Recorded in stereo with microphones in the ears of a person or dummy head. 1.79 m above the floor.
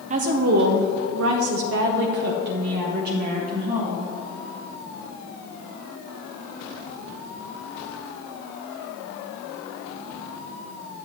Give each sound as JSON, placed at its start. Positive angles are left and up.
{"t": 0.1, "sound": "a woman speaking", "side_deg": -40, "distance_m": 0.9}